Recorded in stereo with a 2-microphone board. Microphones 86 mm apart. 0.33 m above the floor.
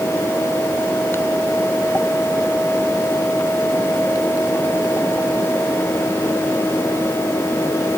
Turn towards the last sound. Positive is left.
No sound to turn to.